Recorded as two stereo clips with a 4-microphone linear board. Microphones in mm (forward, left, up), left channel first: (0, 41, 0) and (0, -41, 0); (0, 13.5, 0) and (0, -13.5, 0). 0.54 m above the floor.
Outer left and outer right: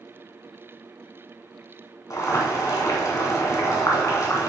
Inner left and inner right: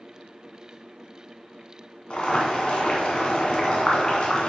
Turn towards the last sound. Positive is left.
turn(degrees=40)  # may be behind; listen again after turning